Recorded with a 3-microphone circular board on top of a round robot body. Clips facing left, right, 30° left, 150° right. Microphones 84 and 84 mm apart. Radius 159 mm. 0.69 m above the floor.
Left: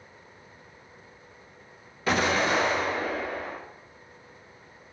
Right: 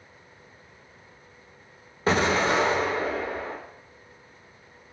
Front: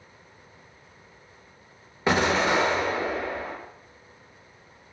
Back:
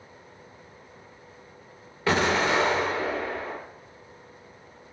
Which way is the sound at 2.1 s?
40° right.